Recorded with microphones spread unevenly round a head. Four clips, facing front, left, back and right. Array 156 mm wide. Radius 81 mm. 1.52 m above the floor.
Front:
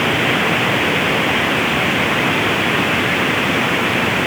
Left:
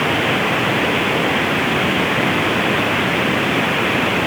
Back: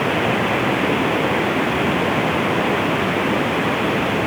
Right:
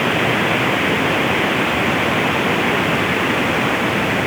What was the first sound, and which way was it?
Only background noise.